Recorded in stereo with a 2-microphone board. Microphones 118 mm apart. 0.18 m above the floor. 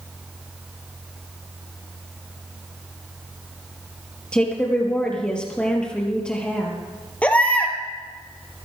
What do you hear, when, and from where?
4.3 s a woman speaking: 10° left (ahead or behind), 4.5 m
7.2 s a baby crying: 10° left (ahead or behind), 2.5 m